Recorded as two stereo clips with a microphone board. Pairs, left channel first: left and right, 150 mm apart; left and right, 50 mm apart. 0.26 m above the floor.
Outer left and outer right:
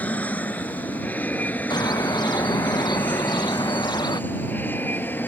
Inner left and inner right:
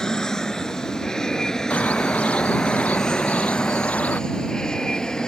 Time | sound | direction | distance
0.0 | an aircraft | 10° left (ahead or behind) | ?
1.7 | a bird | 30° left (ahead or behind) | ?